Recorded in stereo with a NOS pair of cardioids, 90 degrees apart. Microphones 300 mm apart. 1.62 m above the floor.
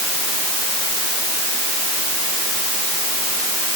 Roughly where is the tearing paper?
I don't hear tearing paper.